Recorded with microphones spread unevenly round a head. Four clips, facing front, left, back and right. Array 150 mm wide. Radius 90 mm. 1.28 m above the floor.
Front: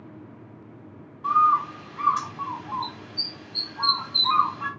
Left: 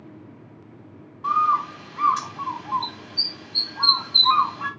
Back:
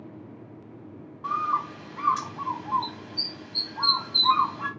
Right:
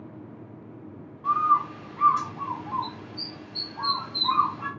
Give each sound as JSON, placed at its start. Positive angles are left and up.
{"t": 1.2, "sound": "a bird", "azimuth_deg": 115, "distance_m": 1.2}